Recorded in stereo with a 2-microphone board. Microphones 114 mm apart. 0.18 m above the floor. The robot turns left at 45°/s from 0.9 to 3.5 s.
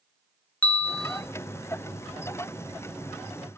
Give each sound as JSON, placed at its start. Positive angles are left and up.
{"t": 0.6, "sound": "a bell", "side_deg": 15, "distance_m": 0.8}